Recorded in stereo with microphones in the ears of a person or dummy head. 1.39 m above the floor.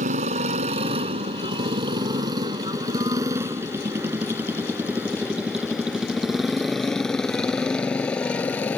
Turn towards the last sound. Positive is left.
turn(degrees=10)  # may be behind; listen again after turning